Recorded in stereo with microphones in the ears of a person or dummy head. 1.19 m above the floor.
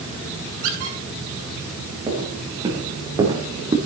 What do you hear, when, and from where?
0.6 s a squeak: 65° right (ahead or behind), 4.5 m
2.1 s footsteps: 25° right (ahead or behind), 6 m